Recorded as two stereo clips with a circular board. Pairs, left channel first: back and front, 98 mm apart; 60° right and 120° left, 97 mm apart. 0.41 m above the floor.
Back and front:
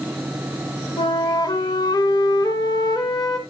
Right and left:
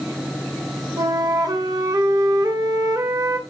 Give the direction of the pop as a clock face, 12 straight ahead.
I don't hear a pop.